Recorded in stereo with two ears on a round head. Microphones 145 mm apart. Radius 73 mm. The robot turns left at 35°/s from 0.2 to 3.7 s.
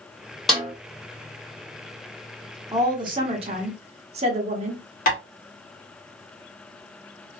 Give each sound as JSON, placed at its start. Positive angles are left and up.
{"t": 0.5, "sound": "a snare drum", "side_deg": 0, "distance_m": 1.9}
{"t": 2.7, "sound": "a woman speaking", "azimuth_deg": -35, "distance_m": 0.9}
{"t": 5.1, "sound": "tapping", "side_deg": 55, "distance_m": 1.6}